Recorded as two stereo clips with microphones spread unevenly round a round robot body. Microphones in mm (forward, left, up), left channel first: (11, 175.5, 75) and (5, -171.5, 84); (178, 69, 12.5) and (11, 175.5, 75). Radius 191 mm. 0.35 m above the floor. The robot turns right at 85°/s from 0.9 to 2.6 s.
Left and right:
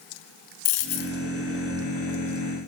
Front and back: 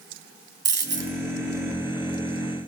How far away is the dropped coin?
About 3 m.